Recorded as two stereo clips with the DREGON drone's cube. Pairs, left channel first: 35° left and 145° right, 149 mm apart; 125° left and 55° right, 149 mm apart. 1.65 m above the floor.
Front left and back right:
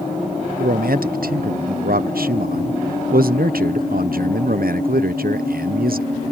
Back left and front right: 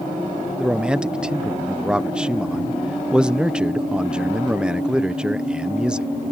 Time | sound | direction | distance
0.6 | a man speaking | 140° right | ?